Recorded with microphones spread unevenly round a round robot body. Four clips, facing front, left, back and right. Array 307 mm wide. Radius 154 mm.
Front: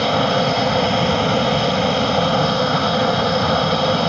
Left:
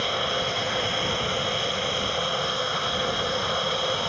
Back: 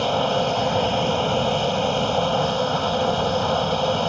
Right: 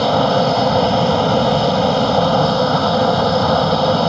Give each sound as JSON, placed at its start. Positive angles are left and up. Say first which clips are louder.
{"t": 0.0, "sound": "an aircraft", "louder": "right 14 dB, front 4 dB", "azimuth_deg": -60}